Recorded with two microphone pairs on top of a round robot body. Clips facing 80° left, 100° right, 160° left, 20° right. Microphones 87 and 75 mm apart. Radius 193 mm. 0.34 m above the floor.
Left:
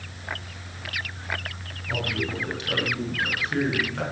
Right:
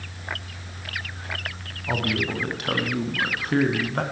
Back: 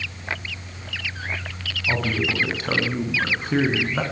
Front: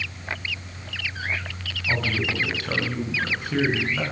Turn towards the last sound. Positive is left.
turn(degrees=-145)